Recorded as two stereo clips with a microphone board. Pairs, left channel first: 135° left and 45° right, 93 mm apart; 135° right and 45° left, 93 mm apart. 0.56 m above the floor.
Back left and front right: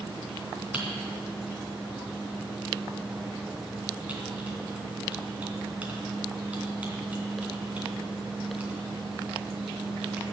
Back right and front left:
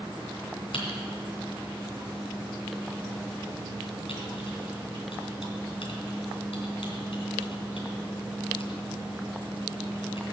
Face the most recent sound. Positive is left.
turn(degrees=-120)